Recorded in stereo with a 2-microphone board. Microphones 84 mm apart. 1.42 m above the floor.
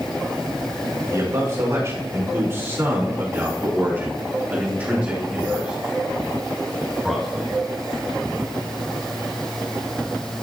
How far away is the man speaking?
About 4.5 m.